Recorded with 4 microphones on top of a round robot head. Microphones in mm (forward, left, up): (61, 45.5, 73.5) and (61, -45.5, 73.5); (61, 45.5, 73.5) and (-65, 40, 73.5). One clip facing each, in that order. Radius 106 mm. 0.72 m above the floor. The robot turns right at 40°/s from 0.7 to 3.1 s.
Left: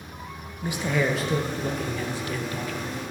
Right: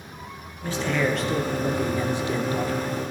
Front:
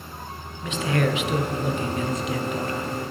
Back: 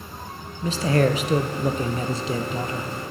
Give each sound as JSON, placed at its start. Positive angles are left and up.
{"t": 0.6, "sound": "a man speaking", "azimuth_deg": 155, "distance_m": 0.6}